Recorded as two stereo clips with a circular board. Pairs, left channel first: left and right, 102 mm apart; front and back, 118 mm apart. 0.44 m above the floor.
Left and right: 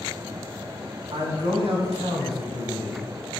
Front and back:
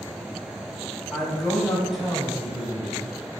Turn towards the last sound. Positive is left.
turn(degrees=-100)